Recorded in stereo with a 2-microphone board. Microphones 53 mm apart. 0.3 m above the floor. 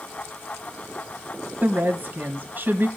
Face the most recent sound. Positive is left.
turn(degrees=-40)  # may be behind; listen again after turning